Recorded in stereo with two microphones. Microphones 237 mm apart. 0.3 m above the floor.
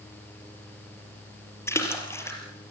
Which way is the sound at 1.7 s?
10° left (ahead or behind).